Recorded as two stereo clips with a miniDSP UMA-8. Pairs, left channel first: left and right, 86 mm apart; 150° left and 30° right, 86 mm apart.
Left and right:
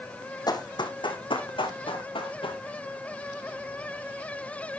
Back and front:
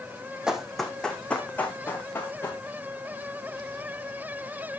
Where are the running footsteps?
50° left, 1.4 m; by 2.6 s 85° left, 3.5 m.